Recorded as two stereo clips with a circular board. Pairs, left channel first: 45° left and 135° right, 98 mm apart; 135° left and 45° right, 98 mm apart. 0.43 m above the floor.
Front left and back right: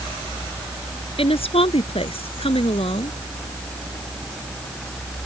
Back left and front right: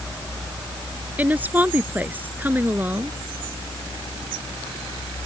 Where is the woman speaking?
30° left.